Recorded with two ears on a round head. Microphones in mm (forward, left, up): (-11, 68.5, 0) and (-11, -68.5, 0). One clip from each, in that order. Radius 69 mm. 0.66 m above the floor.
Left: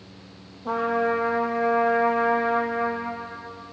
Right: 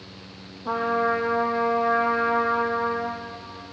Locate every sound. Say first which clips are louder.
0.7 s a trumpet: even; 5° right (ahead or behind), 8 m